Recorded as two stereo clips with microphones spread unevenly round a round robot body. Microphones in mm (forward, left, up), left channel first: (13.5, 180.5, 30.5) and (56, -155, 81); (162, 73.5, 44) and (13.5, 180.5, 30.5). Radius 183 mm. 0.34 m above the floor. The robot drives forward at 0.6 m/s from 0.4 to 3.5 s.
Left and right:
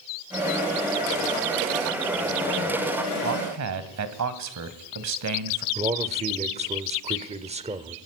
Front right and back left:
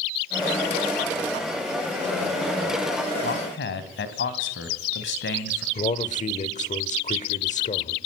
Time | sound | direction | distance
3.2 | a man speaking | 40° right | 2.5 m
5.8 | a man speaking | 10° right | 1.7 m